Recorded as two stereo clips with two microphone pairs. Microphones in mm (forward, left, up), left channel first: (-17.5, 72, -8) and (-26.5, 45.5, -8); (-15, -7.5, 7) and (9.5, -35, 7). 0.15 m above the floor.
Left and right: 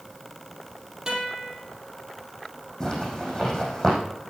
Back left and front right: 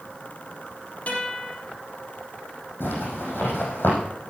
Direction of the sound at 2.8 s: 135° left.